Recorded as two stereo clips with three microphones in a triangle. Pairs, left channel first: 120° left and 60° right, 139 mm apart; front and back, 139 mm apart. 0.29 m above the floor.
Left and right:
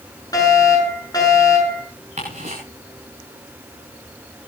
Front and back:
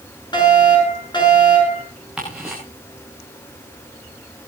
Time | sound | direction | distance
0.3 | a fire alarm | 55° left | 6.5 m
2.2 | ticking | 95° right | 8 m